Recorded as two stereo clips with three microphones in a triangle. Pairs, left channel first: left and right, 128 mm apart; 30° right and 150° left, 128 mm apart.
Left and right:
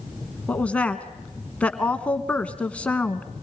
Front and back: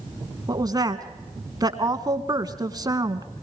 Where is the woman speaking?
160° left, 1.2 m.